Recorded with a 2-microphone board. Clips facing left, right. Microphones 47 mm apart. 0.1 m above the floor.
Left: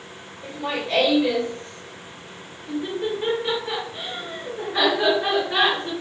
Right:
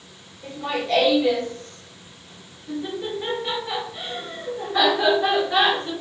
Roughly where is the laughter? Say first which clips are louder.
Right 1 dB; centre.